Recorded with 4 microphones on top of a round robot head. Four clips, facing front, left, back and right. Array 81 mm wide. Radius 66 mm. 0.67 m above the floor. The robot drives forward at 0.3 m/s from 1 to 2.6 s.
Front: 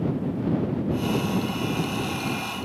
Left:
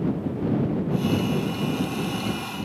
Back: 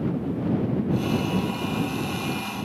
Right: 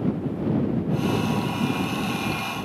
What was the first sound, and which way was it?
Only background noise.